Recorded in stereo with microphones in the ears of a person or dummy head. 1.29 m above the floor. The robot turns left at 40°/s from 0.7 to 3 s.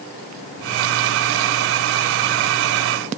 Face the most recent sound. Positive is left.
No sound to turn to.